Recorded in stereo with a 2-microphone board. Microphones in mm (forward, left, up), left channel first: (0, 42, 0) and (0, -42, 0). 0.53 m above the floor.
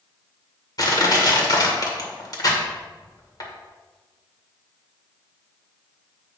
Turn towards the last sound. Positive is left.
turn(degrees=55)  # may be behind; listen again after turning